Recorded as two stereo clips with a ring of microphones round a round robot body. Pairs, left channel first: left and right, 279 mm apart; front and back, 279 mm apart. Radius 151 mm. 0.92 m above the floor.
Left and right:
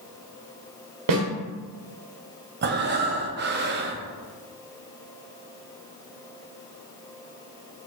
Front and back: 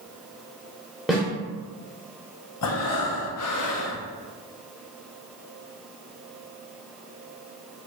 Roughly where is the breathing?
Ahead right.